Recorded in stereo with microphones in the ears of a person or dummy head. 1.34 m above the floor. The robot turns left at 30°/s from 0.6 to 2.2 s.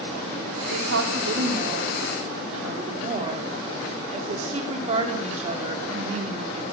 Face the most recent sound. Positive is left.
turn(degrees=-145)